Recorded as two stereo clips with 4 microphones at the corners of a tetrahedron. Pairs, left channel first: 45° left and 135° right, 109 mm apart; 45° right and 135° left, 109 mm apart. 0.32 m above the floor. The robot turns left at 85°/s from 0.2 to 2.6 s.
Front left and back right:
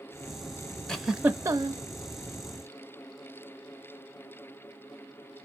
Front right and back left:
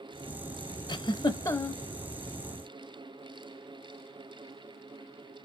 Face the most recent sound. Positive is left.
turn(degrees=180)